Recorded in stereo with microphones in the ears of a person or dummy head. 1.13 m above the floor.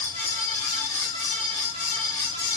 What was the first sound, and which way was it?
A fan, 35° left (ahead or behind).